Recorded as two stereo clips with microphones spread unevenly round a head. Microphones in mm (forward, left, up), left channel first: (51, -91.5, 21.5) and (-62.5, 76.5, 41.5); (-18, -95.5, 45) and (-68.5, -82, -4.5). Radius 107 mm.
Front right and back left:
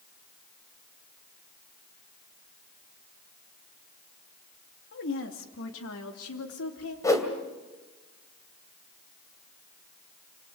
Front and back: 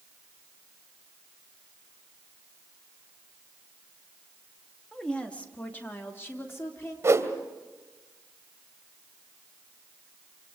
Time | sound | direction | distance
4.9 | a woman speaking | 90° right | 2.5 m
7.0 | a whoosh | 130° right | 2.5 m